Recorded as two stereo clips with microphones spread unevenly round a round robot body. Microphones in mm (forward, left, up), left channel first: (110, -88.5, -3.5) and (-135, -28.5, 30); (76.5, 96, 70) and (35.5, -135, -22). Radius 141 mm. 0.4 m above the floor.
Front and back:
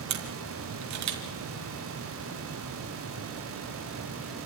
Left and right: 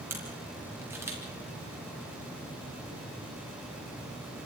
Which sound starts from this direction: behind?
A camera shutter, at 0.1 s.